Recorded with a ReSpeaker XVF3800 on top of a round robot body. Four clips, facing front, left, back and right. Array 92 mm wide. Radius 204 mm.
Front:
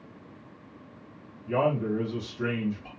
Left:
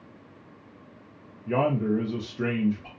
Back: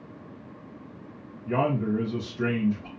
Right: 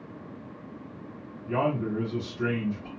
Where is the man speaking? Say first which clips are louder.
Left 3 dB, even; 125° left, 0.7 m.